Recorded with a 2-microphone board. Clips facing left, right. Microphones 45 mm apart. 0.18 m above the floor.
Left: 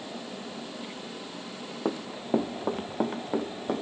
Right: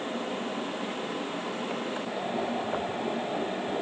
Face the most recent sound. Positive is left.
turn(degrees=60)  # may be behind; listen again after turning